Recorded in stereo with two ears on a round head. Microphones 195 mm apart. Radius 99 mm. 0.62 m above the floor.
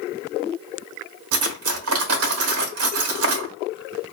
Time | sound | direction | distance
1.3 | cutlery clinking | 70° right (ahead or behind) | 1.2 m